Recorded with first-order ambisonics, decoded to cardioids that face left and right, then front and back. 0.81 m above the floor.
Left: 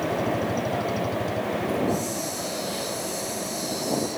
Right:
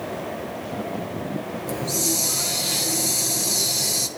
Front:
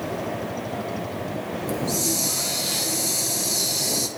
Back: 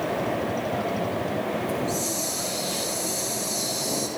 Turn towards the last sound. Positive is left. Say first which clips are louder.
# right 1 dB, front 1 dB
turn(degrees=-55)